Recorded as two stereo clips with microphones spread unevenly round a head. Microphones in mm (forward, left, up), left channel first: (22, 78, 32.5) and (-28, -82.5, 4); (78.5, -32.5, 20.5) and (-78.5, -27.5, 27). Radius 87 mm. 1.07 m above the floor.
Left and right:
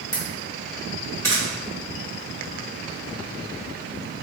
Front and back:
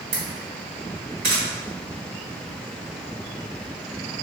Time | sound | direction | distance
0.1 | a camera shutter | 145° left | 1.8 m